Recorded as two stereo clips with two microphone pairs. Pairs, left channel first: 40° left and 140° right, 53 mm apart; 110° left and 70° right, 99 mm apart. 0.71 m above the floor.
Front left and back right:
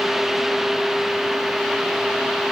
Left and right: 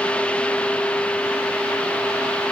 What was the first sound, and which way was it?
Only background noise.